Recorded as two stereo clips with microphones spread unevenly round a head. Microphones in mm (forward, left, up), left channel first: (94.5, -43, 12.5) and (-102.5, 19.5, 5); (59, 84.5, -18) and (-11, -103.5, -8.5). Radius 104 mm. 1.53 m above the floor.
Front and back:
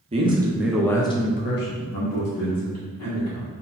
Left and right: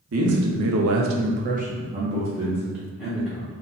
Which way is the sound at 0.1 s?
135° right.